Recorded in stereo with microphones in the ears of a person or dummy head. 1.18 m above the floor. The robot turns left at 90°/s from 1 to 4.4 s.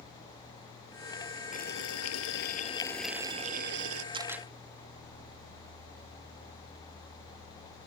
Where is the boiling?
140° left; by 4.0 s 85° right.